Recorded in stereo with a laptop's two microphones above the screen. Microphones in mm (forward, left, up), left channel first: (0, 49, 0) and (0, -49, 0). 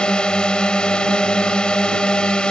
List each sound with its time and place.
0.0 s a drone: 10° left (ahead or behind)